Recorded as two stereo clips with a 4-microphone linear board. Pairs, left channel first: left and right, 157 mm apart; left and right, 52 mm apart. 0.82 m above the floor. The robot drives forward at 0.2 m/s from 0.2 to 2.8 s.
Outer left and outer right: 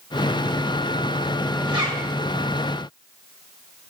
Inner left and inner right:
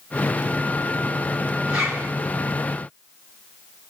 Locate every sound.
1.7 s a zipper: 30° right (ahead or behind), 1.3 m